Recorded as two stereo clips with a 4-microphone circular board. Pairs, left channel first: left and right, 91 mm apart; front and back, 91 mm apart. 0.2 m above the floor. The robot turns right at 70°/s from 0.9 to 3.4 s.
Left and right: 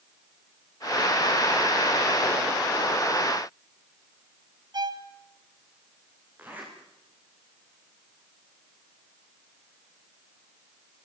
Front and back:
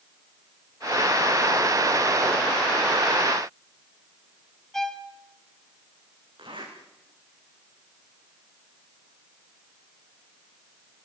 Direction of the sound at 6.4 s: 160° right.